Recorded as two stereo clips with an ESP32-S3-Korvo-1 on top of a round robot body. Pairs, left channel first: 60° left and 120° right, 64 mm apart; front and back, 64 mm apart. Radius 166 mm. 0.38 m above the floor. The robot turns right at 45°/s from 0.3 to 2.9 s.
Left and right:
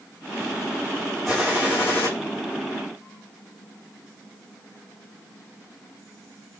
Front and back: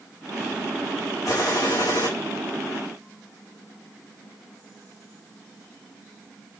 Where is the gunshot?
30° right, 7 m; by 2.1 s 10° left, 7 m.